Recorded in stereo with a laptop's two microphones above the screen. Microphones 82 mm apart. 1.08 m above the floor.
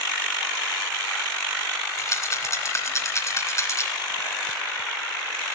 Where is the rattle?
35° left (ahead or behind), 2.5 m.